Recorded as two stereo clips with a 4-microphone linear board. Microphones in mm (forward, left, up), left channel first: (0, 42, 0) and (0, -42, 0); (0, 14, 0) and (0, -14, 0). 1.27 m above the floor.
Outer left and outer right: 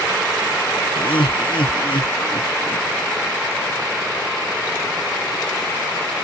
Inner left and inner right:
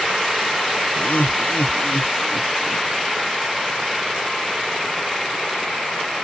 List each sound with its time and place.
1.0 s laughter: 85° left